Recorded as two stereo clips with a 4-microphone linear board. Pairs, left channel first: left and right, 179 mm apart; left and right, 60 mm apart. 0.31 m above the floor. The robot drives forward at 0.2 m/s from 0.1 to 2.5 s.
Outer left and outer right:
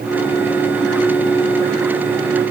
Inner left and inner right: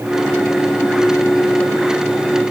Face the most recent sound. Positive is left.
No sound to turn to.